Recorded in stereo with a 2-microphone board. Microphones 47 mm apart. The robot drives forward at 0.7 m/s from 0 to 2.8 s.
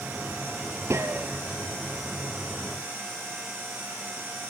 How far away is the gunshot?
About 1.5 m.